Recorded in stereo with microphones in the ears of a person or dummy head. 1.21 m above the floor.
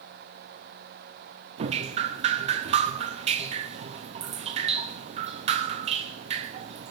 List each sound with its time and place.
1.6 s dripping: 35° right (ahead or behind), 0.7 m